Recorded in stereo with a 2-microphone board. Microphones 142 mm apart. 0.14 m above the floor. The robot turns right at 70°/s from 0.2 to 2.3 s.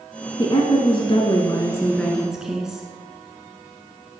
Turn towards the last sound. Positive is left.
turn(degrees=-175)